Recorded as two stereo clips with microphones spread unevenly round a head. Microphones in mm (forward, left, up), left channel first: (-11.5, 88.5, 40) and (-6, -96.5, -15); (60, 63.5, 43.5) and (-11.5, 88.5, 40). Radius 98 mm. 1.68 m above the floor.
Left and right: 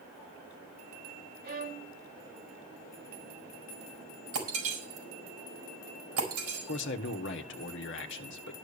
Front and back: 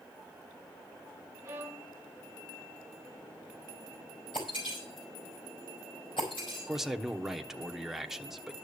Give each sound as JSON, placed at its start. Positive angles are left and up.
{"t": 1.4, "sound": "a violin", "azimuth_deg": -125, "distance_m": 2.0}
{"t": 4.3, "sound": "breaking glass", "azimuth_deg": -75, "distance_m": 4.5}
{"t": 6.7, "sound": "a man speaking", "azimuth_deg": 75, "distance_m": 1.2}